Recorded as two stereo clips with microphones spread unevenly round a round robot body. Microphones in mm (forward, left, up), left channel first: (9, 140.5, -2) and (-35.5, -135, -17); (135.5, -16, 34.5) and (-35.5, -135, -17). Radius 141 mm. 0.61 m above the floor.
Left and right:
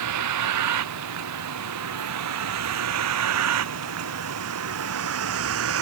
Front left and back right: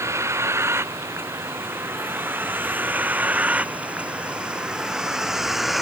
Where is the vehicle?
70° right; by 5.8 s 55° right.